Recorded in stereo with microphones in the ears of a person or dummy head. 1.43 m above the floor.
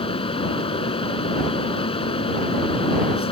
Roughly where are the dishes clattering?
No dishes clattering in this recording.